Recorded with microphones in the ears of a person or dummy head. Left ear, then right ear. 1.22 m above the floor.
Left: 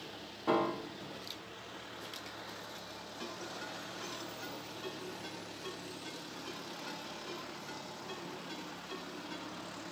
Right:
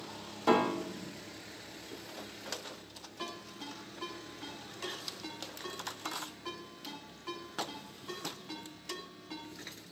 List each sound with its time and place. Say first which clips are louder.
0.5 s a piano: right 4 dB; 85° right, 1.6 m
3.2 s a ringtone: right 1 dB; 35° right (ahead or behind), 9.5 m